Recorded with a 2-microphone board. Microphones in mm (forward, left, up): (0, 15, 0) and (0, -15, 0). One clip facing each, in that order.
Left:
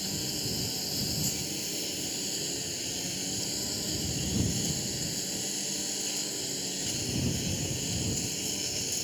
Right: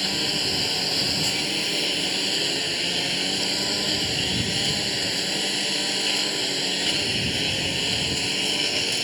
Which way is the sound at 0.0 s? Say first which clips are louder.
Right 10 dB; 60° right (ahead or behind).